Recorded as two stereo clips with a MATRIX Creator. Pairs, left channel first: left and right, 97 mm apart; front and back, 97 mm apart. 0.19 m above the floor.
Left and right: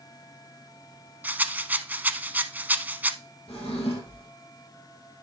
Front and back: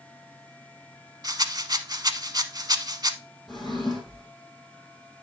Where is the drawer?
90° left, 4.5 m.